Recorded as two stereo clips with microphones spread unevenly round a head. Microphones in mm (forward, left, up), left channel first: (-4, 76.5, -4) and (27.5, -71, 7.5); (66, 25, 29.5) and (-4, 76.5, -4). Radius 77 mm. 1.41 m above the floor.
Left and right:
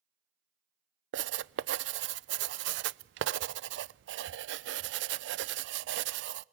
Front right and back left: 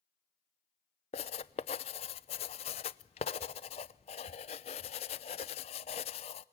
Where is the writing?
65° right, 0.5 m.